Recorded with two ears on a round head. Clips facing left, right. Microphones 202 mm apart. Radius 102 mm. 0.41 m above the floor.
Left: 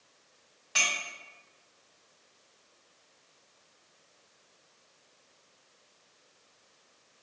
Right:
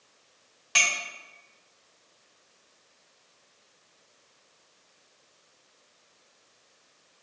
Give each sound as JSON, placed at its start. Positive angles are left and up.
{"t": 0.8, "sound": "a clink", "side_deg": -65, "distance_m": 1.3}